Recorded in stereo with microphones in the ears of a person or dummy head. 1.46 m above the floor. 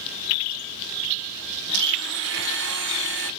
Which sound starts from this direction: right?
A blender, at 1.7 s.